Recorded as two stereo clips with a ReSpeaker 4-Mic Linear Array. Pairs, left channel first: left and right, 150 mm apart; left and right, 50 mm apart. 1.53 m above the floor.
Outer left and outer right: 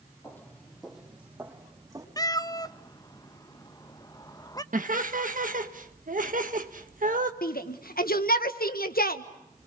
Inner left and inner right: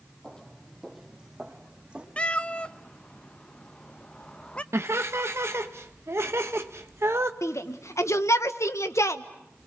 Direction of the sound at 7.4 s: 80° left.